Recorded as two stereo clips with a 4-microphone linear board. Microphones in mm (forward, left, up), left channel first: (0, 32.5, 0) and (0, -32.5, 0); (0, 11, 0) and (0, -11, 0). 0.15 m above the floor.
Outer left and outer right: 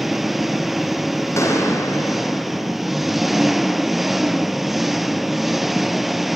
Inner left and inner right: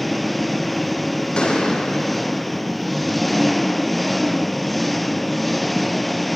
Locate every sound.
0.0 s an engine running: 5° right (ahead or behind), 0.9 m
1.4 s a gunshot: 50° left (ahead or behind), 5.5 m